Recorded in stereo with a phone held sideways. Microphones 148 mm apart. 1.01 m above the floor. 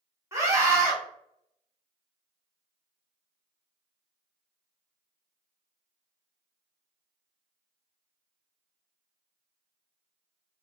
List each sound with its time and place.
0.3 s a scream: 20° right (ahead or behind), 1.1 m